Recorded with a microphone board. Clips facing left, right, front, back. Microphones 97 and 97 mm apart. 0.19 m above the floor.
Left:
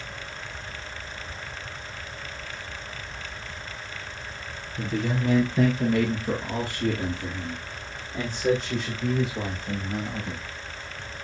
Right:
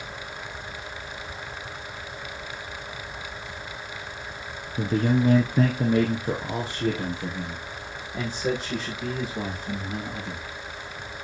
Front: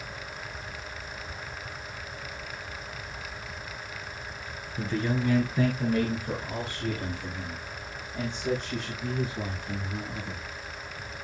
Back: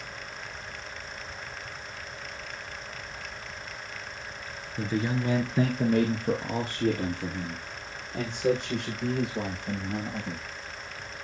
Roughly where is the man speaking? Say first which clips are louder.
Right 5 dB, even; right.